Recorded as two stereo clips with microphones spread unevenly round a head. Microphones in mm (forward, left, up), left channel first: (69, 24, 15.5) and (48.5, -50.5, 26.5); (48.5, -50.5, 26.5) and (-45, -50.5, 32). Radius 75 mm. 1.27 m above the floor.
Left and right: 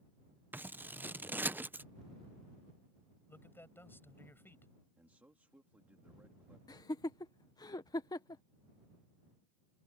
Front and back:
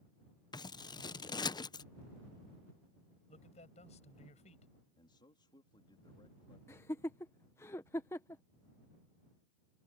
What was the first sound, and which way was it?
Scissors, 35° right.